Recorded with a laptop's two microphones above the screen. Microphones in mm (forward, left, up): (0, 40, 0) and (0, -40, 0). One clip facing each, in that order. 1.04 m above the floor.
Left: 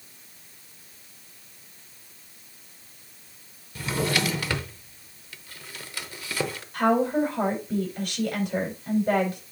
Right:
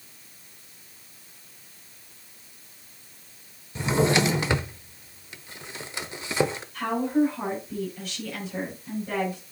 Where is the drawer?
20° right (ahead or behind), 0.7 m.